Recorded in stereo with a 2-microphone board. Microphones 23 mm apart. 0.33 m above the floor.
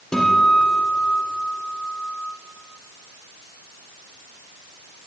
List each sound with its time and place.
0.1 s a guitar: 25° left (ahead or behind), 3 m